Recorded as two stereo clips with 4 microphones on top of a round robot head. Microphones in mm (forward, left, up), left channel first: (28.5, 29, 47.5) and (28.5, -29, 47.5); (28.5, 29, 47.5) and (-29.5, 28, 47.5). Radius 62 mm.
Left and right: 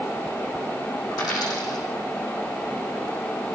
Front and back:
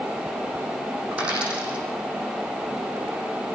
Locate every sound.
1.1 s a dropped coin: 110° left, 6.5 m